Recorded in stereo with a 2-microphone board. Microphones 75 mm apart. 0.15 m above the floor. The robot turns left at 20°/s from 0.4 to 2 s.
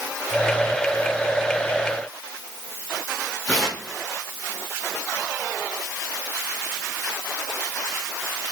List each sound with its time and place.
3.5 s tearing paper: 20° left (ahead or behind), 3 m